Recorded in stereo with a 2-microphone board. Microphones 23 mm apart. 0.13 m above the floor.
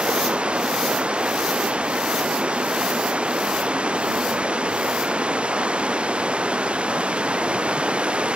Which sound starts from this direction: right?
Running water, at 0.0 s.